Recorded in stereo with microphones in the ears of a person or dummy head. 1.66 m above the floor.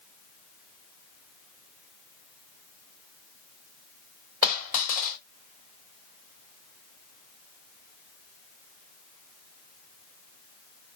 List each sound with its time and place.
4.4 s a dropped coin: 45° left (ahead or behind), 2 m